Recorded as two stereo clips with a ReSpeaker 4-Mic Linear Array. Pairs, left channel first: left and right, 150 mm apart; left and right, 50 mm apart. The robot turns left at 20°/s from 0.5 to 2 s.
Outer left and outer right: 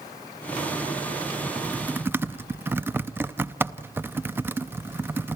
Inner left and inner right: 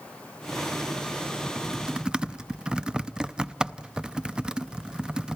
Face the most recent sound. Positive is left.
turn(degrees=-15)  # may be behind; listen again after turning